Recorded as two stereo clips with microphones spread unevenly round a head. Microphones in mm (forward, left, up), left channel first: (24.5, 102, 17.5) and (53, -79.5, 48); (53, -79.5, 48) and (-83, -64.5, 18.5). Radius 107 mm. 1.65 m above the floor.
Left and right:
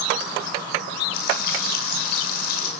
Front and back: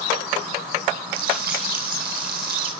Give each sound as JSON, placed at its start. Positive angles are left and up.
{"t": 1.1, "sound": "frying", "azimuth_deg": 150, "distance_m": 7.5}